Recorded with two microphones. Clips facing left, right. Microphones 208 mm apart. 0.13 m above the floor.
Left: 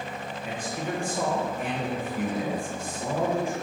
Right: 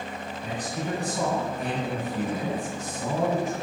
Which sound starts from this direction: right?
A man speaking, at 0.4 s.